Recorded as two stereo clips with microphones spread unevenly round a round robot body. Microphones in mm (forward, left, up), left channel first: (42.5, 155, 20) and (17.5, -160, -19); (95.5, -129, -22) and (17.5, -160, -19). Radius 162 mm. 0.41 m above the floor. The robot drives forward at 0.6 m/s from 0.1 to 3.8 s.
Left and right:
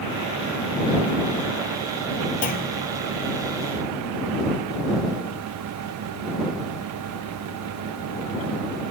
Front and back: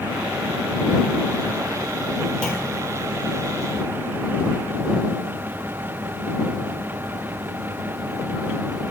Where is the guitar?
No guitar in this recording.